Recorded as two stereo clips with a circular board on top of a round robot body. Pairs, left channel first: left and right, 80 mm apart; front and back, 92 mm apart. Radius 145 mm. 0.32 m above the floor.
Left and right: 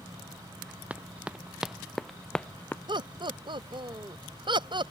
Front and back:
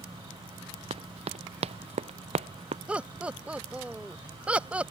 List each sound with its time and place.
0.9 s running footsteps: 165° right; by 2.8 s 160° left
2.9 s laughter: 105° right